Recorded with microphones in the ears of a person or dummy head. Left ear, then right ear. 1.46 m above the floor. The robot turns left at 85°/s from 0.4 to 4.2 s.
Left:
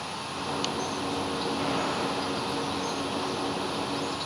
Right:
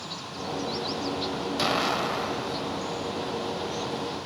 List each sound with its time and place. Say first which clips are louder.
1.6 s an explosion: right 7 dB; 70° right, 2 m; by 3.1 s 160° left, 2 m